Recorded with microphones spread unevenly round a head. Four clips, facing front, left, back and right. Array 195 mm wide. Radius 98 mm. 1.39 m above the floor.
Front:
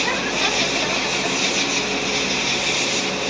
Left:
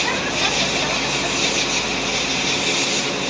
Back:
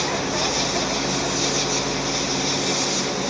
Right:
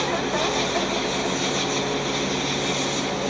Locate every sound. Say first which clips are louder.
0.0 s an insect: even, front 1 dB; 45° left